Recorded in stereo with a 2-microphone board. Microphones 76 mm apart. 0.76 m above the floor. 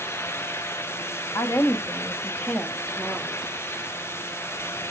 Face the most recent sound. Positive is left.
turn(degrees=-5)  # may be behind; listen again after turning